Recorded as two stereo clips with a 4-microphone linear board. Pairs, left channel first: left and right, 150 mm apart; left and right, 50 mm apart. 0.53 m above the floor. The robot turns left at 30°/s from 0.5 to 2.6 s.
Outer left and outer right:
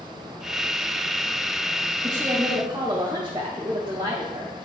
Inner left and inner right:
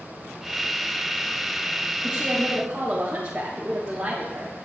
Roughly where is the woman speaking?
Centre.